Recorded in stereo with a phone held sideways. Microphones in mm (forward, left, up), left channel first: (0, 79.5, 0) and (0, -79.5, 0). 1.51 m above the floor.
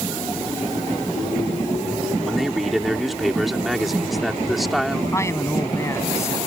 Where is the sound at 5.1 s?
20° left (ahead or behind).